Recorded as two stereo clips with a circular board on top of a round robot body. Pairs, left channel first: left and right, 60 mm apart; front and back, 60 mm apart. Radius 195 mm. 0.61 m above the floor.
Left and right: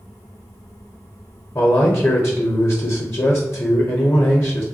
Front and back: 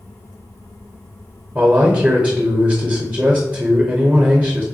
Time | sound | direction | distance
1.6 | a man speaking | 120° left | 0.8 m